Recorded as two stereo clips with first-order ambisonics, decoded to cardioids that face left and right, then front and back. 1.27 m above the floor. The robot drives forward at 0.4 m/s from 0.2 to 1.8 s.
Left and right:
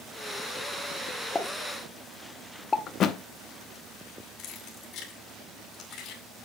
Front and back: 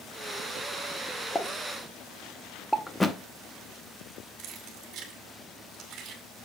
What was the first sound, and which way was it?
A pop, 50° left.